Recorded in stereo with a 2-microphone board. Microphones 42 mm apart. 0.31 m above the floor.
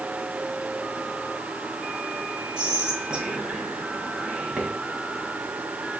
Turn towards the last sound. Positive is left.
turn(degrees=-20)  # may be behind; listen again after turning